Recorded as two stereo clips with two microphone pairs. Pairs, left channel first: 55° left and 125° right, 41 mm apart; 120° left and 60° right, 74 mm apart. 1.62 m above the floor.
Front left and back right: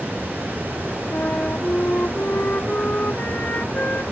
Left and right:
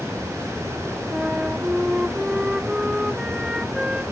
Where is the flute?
20° left.